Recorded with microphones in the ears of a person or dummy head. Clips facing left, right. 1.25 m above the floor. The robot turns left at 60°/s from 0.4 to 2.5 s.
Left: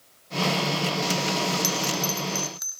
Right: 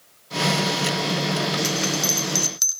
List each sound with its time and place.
1.6 s a bell: 5° left (ahead or behind), 1.1 m; by 2.8 s 40° right (ahead or behind), 1.1 m